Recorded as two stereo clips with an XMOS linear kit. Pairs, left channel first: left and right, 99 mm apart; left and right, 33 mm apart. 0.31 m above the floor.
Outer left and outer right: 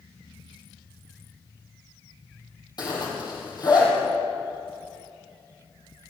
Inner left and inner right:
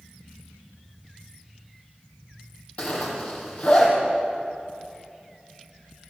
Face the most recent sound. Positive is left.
turn(degrees=40)  # may be behind; listen again after turning